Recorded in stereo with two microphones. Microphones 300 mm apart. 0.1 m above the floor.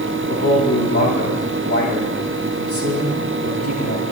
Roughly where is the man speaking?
Left.